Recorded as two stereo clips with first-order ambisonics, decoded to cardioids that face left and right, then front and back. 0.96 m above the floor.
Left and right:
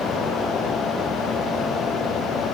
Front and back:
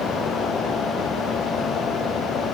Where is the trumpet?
I don't hear a trumpet.